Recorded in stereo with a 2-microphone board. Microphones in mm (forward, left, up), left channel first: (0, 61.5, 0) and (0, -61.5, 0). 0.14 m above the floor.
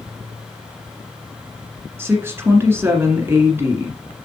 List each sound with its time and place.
2.0 s a woman speaking: 20° right (ahead or behind), 1.6 m